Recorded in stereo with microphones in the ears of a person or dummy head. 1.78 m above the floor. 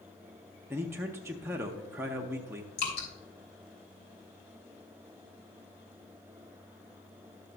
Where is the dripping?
70° left (ahead or behind), 3 m.